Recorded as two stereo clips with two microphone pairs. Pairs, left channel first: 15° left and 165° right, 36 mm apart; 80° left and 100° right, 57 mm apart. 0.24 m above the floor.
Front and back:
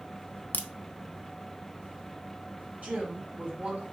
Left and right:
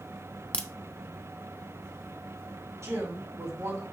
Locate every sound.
0.5 s a crack: 10° left, 0.5 m
2.8 s a woman speaking: 125° right, 3.5 m